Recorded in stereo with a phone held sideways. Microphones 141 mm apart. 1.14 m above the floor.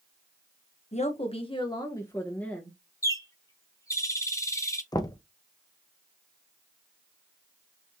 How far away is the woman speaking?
About 1.0 m.